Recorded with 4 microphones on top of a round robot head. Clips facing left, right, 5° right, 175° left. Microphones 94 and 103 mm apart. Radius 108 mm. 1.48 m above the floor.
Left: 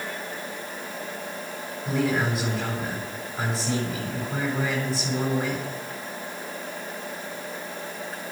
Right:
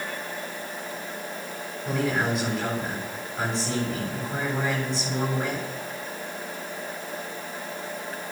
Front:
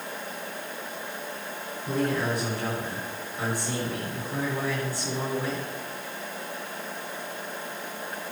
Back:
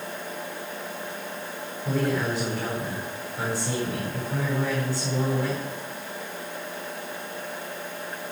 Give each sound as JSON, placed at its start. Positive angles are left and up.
{"t": 1.9, "sound": "a man speaking", "azimuth_deg": 180, "distance_m": 8.0}